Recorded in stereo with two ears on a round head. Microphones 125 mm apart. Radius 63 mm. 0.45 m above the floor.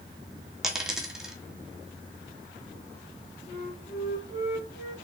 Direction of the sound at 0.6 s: 5° right (ahead or behind).